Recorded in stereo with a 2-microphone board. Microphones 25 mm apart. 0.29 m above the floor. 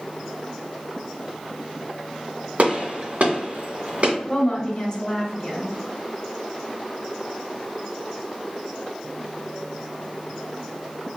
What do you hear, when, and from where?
2.6 s a gunshot: 65° right (ahead or behind), 2 m
4.3 s a woman speaking: 30° left (ahead or behind), 1.6 m